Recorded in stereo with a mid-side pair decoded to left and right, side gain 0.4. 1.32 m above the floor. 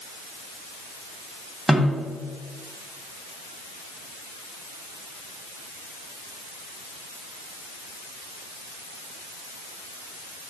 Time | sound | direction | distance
1.7 | a snare drum | 10° right | 2.5 m